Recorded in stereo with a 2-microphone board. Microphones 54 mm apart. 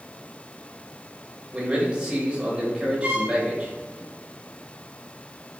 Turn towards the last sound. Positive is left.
turn(degrees=-30)  # may be behind; listen again after turning